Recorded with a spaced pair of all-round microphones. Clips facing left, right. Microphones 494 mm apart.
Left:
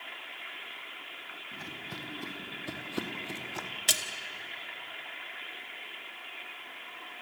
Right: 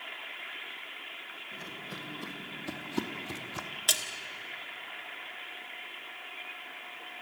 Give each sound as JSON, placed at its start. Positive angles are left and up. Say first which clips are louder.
{"t": 1.5, "sound": "footsteps", "louder": "even", "side_deg": 20, "distance_m": 2.5}
{"t": 3.9, "sound": "a splash", "louder": "even", "side_deg": 45, "distance_m": 1.2}